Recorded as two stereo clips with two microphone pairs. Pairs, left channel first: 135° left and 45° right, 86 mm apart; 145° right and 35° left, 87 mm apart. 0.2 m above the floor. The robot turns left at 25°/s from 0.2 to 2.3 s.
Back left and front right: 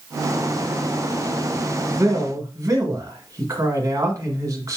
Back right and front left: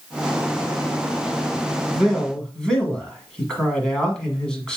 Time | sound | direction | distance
1.9 | a man speaking | 55° right | 1.5 m